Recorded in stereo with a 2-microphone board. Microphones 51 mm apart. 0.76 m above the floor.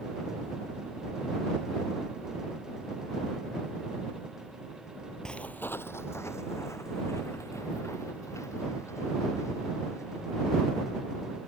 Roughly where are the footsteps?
Centre.